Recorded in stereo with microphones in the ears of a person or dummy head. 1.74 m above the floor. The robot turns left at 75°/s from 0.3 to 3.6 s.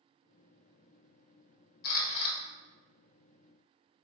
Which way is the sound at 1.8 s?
50° left.